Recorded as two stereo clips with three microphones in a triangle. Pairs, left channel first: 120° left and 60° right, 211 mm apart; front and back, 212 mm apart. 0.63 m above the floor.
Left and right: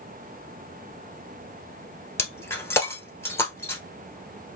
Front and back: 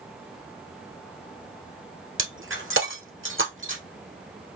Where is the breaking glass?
160° right, 1.4 m.